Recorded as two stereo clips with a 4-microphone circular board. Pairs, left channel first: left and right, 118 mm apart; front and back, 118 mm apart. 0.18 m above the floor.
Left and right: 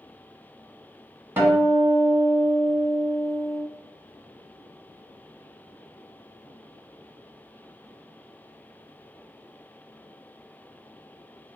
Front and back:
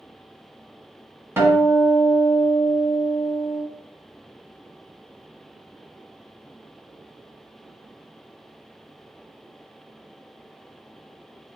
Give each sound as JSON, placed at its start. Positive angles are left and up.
{"t": 1.4, "sound": "a guitar", "azimuth_deg": -140, "distance_m": 1.3}